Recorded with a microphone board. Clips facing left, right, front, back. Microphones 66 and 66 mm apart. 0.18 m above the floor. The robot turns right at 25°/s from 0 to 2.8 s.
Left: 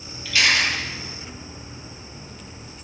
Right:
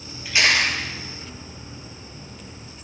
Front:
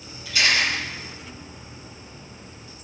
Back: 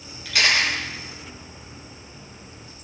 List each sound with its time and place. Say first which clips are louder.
0.2 s a camera shutter: right 1 dB, back 1 dB; 160° right, 4.5 m; by 0.8 s 145° right, 4.5 m